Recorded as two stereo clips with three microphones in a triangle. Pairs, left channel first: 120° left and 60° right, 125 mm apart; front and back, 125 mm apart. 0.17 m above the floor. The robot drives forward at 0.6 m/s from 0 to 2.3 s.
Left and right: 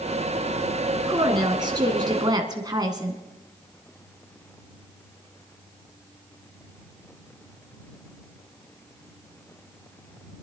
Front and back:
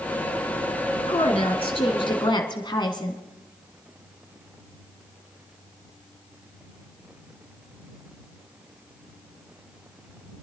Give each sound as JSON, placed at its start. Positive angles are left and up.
{"t": 1.1, "sound": "a woman speaking", "azimuth_deg": -15, "distance_m": 2.0}